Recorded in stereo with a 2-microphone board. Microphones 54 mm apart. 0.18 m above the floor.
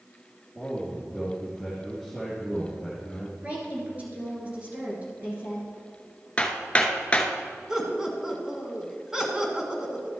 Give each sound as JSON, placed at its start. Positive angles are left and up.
{"t": 0.6, "sound": "a man speaking", "side_deg": -5, "distance_m": 2.5}
{"t": 3.4, "sound": "a woman speaking", "side_deg": -30, "distance_m": 3.0}
{"t": 6.4, "sound": "hammering", "side_deg": 25, "distance_m": 0.9}
{"t": 7.7, "sound": "laughter", "side_deg": -10, "distance_m": 2.0}